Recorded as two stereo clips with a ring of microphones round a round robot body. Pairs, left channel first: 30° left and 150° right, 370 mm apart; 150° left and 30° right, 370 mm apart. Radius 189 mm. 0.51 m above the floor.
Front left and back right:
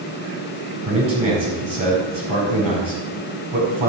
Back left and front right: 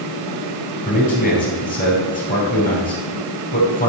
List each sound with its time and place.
0.8 s a man speaking: 140° right, 5 m